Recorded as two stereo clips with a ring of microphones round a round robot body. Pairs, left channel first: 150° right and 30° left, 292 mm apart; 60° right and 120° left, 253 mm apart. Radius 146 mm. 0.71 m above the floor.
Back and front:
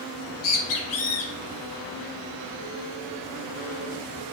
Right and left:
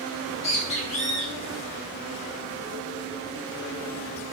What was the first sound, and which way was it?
A bird, 125° right.